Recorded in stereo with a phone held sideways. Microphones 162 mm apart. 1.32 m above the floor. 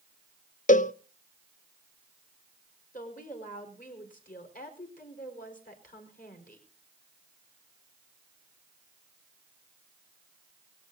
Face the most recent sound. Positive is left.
turn(degrees=60)  # may be behind; listen again after turning